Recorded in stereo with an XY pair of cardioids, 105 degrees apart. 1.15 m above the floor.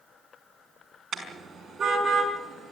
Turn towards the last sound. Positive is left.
turn(degrees=-40)